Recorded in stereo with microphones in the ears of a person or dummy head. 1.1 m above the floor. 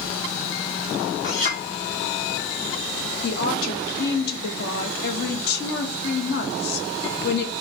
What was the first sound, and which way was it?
A clink, 45° left (ahead or behind).